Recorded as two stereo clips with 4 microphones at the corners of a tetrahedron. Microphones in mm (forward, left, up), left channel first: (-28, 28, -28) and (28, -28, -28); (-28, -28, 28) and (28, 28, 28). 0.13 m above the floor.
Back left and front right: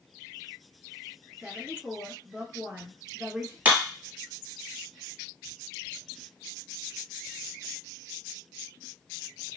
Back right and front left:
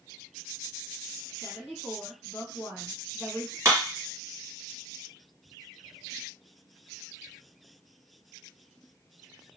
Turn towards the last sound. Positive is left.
turn(degrees=20)